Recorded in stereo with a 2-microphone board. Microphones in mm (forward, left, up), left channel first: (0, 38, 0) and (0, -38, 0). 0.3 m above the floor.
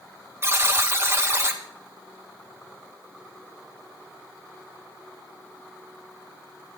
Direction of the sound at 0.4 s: 35° right (ahead or behind).